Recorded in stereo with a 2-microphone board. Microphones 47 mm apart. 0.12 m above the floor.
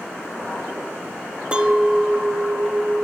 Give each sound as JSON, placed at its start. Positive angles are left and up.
{"t": 1.5, "sound": "a clink", "side_deg": -25, "distance_m": 0.7}